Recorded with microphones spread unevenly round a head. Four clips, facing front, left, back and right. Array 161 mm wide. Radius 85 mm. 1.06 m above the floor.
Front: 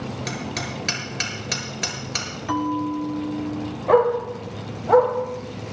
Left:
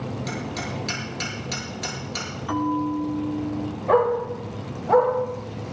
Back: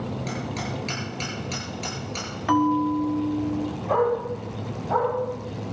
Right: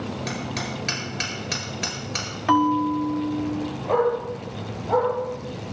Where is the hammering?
30° right, 7.5 m.